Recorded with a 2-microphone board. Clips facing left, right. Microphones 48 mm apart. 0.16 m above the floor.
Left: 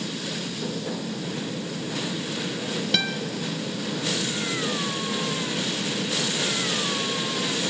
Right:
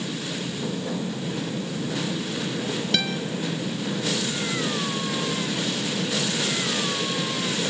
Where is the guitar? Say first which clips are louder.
Even; centre (ahead or behind), 1.7 m.